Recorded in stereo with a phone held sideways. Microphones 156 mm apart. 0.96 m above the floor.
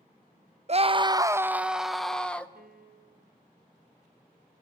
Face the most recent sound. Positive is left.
turn(degrees=-80)